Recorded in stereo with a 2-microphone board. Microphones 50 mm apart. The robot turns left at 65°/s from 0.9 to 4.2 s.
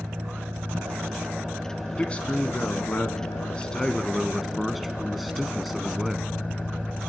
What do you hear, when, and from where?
0.0 s an engine running: 120° right, 5.5 m; by 7.1 s 25° left, 5.5 m
2.0 s a man speaking: 145° left, 1.3 m; by 6.3 s straight ahead, 1.3 m